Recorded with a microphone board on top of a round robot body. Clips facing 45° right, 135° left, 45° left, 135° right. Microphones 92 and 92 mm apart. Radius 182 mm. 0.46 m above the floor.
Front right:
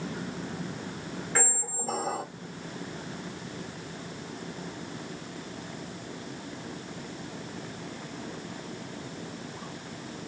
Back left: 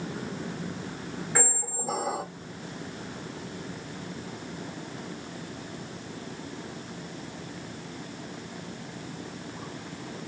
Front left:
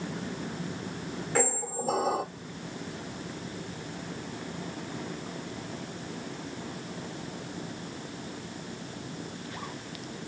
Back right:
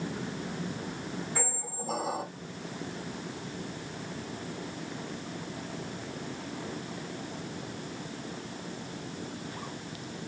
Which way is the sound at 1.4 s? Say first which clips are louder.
Back left 1 dB, front left 7 dB; 55° left.